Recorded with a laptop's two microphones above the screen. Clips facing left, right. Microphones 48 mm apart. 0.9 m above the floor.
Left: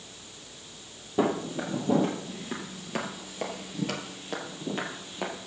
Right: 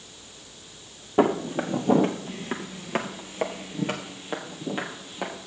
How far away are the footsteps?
About 1.7 m.